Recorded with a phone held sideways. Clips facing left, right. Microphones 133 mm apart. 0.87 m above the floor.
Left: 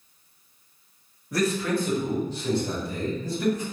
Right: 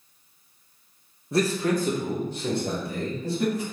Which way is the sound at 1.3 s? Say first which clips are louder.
Right 1 dB; 25° right (ahead or behind).